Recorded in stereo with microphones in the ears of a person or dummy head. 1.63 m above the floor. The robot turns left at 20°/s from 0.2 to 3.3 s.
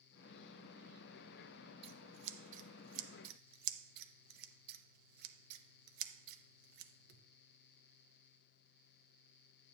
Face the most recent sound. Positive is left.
turn(degrees=-65)  # may be behind; listen again after turning